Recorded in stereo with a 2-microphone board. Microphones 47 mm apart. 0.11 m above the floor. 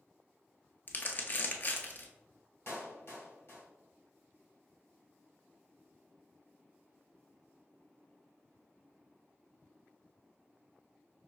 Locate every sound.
0.9 s crumpling: 40° left (ahead or behind), 0.6 m
2.7 s a clap: 55° left (ahead or behind), 1.8 m